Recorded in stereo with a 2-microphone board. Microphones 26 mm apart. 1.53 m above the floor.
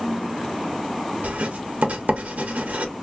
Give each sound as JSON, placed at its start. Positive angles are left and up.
{"t": 1.2, "sound": "writing", "side_deg": -70, "distance_m": 0.8}